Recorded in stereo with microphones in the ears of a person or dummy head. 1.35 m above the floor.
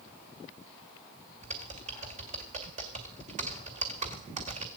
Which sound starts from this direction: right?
Typing on a keyboard, at 1.4 s.